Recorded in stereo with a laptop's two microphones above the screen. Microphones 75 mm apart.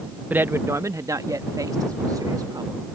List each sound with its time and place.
0.3 s a man speaking: 25° right (ahead or behind); by 2.8 s 60° right (ahead or behind)